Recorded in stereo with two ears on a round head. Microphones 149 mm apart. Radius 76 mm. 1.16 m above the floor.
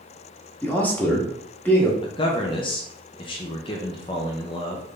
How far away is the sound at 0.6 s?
About 1.1 m.